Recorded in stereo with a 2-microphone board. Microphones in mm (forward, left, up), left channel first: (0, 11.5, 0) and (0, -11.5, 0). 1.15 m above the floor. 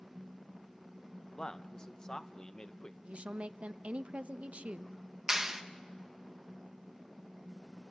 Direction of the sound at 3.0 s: 65° right (ahead or behind).